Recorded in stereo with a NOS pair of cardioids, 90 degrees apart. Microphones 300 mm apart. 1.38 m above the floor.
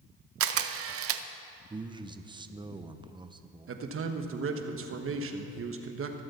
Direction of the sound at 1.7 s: 15° right.